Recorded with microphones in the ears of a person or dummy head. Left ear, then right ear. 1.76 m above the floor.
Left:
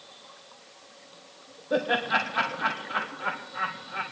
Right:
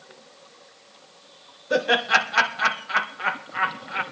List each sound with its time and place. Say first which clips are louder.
1.7 s laughter: right 5 dB; 75° right (ahead or behind), 1.9 m